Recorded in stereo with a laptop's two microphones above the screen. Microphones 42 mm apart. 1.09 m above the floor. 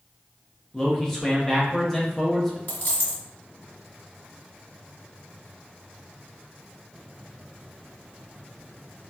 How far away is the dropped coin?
About 1.6 m.